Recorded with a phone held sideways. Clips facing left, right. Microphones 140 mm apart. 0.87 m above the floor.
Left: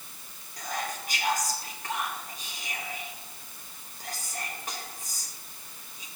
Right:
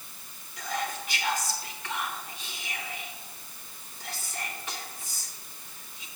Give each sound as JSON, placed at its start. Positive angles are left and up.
{"t": 0.6, "sound": "whispering", "side_deg": 40, "distance_m": 1.1}